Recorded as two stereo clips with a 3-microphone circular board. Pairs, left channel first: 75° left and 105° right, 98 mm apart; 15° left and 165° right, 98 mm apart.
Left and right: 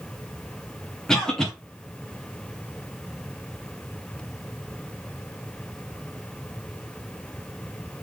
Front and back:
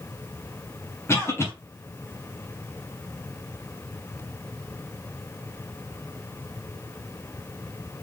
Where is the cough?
5° right, 1.1 m.